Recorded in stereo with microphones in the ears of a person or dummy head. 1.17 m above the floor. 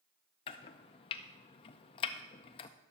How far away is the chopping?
About 0.5 m.